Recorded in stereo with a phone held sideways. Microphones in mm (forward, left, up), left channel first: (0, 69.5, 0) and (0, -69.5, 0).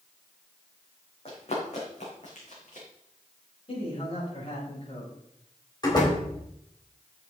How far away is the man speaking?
About 5 m.